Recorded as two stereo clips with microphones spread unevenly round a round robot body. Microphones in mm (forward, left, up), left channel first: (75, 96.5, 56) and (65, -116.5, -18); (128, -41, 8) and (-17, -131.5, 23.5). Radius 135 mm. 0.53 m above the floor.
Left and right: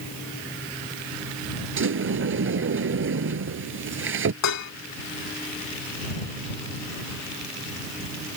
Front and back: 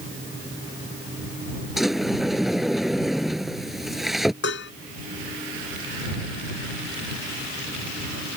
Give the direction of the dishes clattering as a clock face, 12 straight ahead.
9 o'clock.